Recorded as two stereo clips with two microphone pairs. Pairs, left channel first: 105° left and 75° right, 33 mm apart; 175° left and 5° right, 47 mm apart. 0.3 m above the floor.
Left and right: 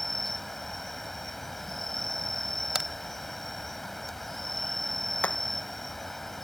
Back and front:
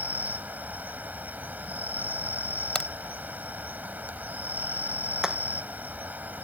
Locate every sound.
0.0 s an insect: 30° left
2.8 s a crack: 125° right
5.2 s hammering: 70° left